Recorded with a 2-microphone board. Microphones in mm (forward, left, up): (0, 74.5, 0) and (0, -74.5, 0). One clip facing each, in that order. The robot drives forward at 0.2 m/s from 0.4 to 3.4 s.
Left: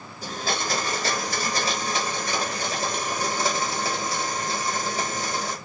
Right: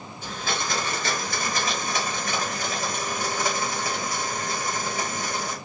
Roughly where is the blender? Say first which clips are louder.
Left 2 dB; left.